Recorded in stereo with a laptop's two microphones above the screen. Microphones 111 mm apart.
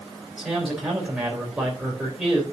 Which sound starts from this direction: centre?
A man speaking, at 0.4 s.